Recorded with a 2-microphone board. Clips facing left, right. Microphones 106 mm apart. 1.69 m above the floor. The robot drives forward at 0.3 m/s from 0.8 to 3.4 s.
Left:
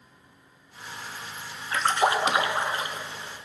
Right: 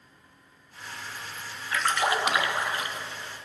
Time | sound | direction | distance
1.7 | a splash | 30° left (ahead or behind) | 1.2 m